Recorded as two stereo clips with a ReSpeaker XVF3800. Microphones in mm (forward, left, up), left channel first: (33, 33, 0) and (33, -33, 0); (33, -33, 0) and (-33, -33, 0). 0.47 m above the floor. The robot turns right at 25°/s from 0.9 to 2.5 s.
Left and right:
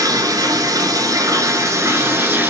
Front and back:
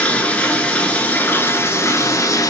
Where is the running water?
70° right, 1.4 m; by 2.5 s 30° right, 1.4 m.